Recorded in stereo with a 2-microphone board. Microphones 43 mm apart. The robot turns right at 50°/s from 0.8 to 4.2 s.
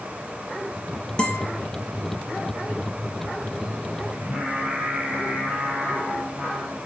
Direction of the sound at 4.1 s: 30° right (ahead or behind).